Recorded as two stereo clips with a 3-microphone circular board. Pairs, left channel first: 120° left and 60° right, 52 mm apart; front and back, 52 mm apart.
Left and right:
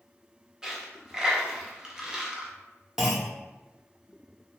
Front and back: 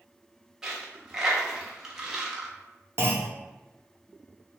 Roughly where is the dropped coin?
Behind right.